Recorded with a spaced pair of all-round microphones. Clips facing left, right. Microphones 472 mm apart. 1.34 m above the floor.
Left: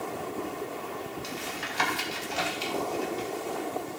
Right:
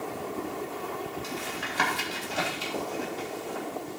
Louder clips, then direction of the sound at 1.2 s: Right 1 dB; 70° right (ahead or behind).